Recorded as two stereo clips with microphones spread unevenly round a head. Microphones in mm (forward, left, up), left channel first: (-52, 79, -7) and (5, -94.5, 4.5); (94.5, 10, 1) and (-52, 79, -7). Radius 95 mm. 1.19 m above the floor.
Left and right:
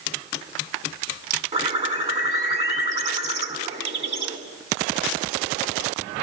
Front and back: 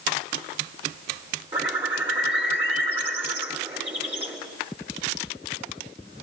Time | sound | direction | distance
1.5 | a bird | 125° right | 4 m